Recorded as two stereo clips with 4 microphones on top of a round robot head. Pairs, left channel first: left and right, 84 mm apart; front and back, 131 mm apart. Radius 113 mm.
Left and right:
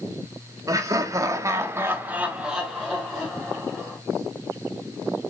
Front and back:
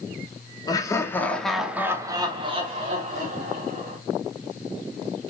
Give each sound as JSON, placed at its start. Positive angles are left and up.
{"t": 0.7, "sound": "laughter", "azimuth_deg": -50, "distance_m": 1.0}